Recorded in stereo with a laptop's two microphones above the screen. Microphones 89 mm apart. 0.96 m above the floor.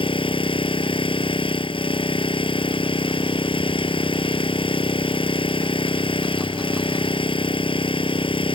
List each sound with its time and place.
0.0 s an engine running: 80° left